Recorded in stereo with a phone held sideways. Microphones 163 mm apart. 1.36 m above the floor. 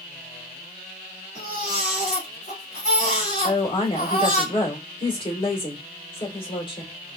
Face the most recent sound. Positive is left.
turn(degrees=30)  # may be behind; listen again after turning